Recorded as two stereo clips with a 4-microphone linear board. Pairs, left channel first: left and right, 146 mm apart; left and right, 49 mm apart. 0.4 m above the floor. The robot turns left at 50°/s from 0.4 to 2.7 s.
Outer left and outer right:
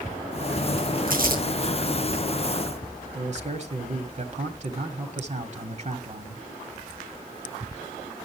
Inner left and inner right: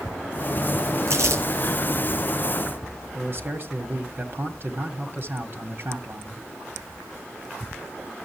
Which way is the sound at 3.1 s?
50° right (ahead or behind).